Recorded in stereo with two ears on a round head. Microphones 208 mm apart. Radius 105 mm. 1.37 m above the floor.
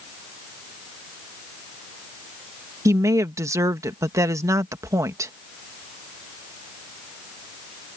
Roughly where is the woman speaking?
Centre.